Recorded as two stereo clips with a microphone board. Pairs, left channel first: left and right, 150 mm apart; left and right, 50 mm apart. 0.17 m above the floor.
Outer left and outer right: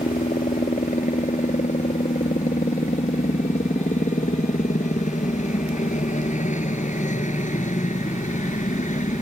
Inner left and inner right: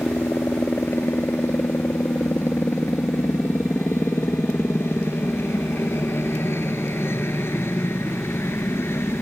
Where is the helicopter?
55° left (ahead or behind).